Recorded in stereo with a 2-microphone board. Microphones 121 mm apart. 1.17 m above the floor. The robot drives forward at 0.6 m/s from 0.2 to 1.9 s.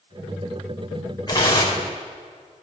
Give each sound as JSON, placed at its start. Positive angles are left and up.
{"t": 1.3, "sound": "tearing paper", "side_deg": 30, "distance_m": 5.5}